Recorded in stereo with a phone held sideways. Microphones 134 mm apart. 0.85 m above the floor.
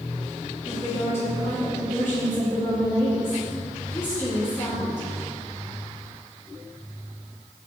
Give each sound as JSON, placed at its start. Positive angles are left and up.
{"t": 0.7, "sound": "a woman speaking", "side_deg": 25, "distance_m": 1.9}